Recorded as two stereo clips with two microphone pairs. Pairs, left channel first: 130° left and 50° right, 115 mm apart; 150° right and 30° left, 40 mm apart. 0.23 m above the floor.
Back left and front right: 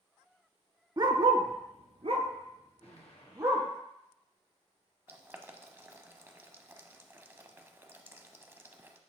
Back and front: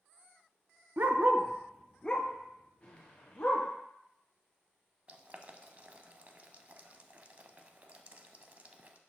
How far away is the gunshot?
About 1.8 m.